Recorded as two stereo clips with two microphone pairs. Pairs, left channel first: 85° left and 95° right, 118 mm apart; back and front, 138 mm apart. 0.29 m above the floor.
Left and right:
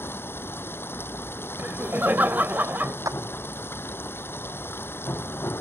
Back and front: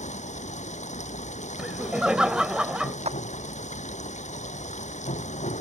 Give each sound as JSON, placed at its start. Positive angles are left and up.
{"t": 0.0, "sound": "running water", "azimuth_deg": 155}
{"t": 1.6, "sound": "laughter", "azimuth_deg": -65}
{"t": 3.0, "sound": "a clap", "azimuth_deg": -35}